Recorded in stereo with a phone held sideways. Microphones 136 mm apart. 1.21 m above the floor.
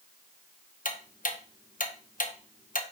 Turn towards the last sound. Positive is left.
turn(degrees=75)  # may be behind; listen again after turning